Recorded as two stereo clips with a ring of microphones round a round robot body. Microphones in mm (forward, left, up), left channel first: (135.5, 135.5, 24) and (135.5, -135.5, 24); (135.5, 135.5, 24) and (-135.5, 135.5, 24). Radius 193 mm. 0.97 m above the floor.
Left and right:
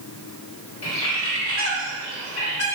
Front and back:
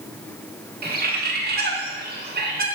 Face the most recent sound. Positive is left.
turn(degrees=125)